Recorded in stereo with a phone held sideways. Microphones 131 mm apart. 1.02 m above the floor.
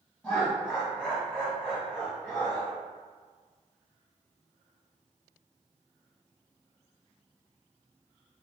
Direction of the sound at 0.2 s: 10° left (ahead or behind).